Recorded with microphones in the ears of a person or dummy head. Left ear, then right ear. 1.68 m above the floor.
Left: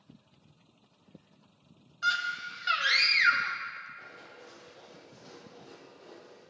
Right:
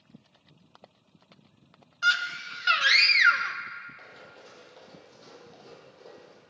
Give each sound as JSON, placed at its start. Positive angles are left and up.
{"t": 2.0, "sound": "a scream", "side_deg": -20, "distance_m": 0.5}
{"t": 4.0, "sound": "running footsteps", "side_deg": -60, "distance_m": 3.5}